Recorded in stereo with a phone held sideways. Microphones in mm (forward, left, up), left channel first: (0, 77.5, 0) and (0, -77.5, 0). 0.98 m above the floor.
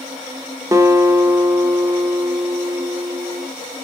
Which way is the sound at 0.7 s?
25° right (ahead or behind).